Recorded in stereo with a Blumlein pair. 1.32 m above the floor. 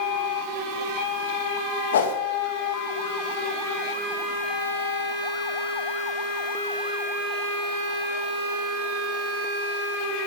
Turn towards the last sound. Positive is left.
turn(degrees=65)